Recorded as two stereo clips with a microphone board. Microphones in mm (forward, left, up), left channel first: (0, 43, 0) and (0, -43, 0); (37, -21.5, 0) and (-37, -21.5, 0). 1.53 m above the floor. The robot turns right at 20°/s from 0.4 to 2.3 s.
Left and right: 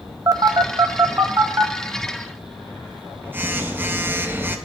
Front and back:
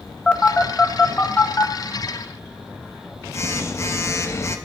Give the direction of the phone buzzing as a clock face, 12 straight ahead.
2 o'clock.